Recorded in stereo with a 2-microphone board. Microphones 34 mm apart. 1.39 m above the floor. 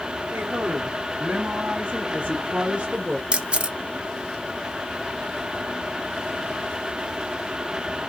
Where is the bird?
No bird in this recording.